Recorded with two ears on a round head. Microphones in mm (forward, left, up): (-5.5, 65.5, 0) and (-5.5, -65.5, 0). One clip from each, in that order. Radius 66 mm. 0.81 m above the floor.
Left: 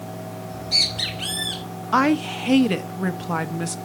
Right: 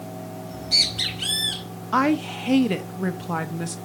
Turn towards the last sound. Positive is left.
turn(degrees=10)  # may be behind; listen again after turning